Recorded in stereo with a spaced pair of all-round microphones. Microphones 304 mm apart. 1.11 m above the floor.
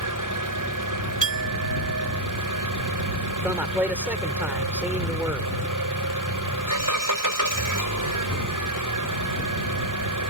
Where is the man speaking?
5° right (ahead or behind).